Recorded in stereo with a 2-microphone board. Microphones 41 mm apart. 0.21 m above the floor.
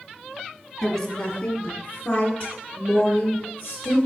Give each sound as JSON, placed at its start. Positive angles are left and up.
{"t": 0.8, "sound": "a woman speaking", "side_deg": 10, "distance_m": 1.3}